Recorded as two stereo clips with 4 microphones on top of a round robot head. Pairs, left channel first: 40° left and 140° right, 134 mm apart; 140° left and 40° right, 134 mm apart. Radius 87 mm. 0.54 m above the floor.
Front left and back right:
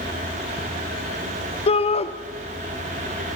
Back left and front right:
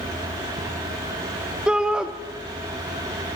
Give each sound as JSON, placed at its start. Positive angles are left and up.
{"t": 1.7, "sound": "a shout", "azimuth_deg": 40, "distance_m": 1.0}